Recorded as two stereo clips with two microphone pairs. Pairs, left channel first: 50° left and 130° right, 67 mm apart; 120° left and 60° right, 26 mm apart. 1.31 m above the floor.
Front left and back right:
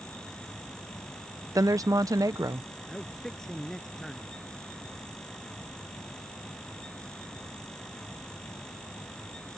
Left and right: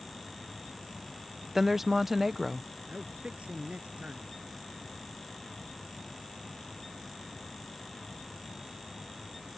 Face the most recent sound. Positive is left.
turn(degrees=-30)